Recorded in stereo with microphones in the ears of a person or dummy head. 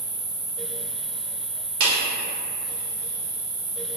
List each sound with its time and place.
0.0 s an insect: 25° left (ahead or behind), 1.0 m
1.8 s a clap: 75° right (ahead or behind), 0.9 m